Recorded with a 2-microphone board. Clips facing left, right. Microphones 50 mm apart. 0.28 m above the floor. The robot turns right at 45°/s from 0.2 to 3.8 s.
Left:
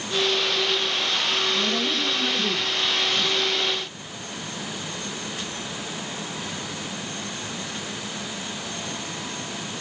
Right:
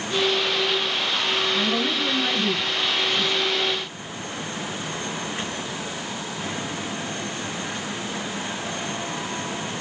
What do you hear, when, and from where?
1.5 s a woman speaking: 90° right, 2.5 m; by 3.5 s 5° right, 2.5 m